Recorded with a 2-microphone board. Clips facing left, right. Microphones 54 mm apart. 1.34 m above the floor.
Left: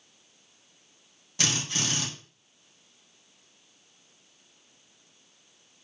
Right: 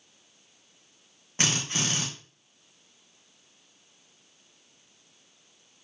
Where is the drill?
35° right (ahead or behind), 2.5 m.